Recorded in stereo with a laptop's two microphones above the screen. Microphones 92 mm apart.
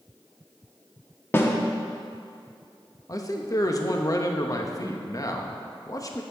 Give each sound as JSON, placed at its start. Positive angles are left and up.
{"t": 1.3, "sound": "a snare drum", "side_deg": 25, "distance_m": 0.7}
{"t": 3.1, "sound": "a man speaking", "side_deg": 40, "distance_m": 0.9}